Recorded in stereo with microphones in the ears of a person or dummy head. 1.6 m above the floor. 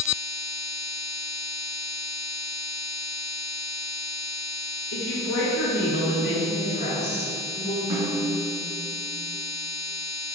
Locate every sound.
4.9 s a woman speaking: 85° left, 2.5 m; by 7.8 s 50° left (ahead or behind), 4 m
7.9 s a snare drum: 15° right (ahead or behind), 1.4 m